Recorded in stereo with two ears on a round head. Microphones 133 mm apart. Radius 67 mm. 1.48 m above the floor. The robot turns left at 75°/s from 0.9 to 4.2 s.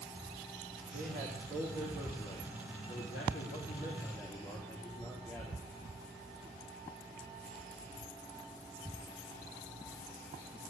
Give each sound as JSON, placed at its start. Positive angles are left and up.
{"t": 0.9, "sound": "a man speaking", "azimuth_deg": -95, "distance_m": 3.5}